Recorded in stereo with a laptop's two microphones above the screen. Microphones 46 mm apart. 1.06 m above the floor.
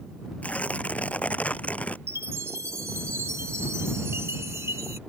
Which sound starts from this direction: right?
A chime, at 2.1 s.